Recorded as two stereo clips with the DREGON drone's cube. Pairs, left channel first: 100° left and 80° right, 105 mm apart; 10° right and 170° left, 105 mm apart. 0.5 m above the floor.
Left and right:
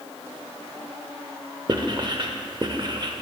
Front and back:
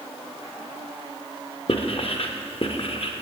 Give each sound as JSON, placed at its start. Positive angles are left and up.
{"t": 1.7, "sound": "writing", "azimuth_deg": -40, "distance_m": 0.7}